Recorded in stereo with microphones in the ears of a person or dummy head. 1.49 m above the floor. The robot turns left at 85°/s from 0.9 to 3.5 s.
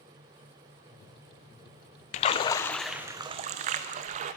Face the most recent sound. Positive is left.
turn(degrees=-50)